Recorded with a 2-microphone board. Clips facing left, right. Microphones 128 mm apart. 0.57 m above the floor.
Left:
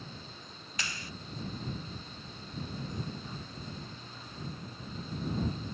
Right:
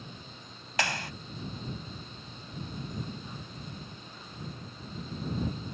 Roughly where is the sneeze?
I don't hear a sneeze.